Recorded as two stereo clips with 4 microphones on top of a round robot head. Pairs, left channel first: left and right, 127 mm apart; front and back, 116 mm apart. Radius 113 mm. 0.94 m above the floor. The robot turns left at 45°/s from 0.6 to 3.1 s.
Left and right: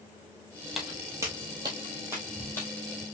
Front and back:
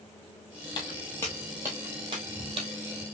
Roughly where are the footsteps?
Ahead.